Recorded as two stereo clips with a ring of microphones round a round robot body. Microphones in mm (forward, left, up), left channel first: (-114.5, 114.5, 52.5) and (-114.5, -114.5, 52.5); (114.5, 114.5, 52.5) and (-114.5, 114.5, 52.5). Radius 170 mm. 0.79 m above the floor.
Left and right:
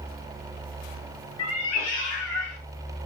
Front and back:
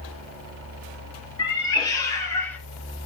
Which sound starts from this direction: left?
A cat meowing, at 1.4 s.